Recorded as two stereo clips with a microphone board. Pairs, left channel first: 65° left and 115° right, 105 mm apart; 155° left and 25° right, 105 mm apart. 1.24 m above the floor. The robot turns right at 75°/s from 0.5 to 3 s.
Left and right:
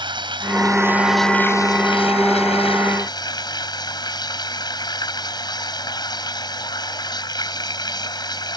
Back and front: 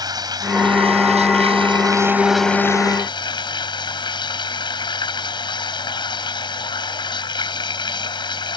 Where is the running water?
75° right; by 8.6 s 115° left.